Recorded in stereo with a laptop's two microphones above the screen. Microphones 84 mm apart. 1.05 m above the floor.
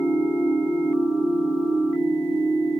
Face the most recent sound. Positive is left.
turn(degrees=5)  # may be behind; listen again after turning